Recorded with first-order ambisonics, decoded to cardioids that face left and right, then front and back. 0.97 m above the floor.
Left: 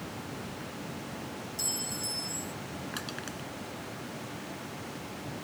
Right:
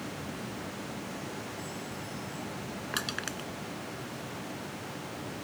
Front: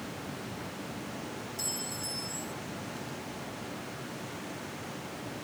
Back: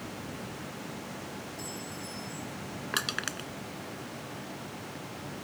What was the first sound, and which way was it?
A clink, 55° left.